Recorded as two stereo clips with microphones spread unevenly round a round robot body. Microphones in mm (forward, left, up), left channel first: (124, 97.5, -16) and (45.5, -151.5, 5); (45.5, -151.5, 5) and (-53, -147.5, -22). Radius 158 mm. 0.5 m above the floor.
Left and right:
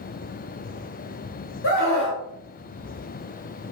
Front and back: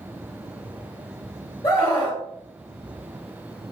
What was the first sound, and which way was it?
A scream, 65° left.